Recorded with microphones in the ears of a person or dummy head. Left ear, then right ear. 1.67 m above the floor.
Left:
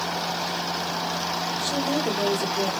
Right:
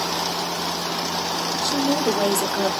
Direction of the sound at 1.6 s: 25° left (ahead or behind).